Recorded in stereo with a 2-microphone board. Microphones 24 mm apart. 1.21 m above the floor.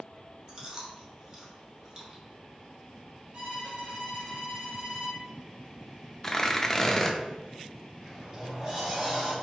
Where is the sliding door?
20° right (ahead or behind), 2 m.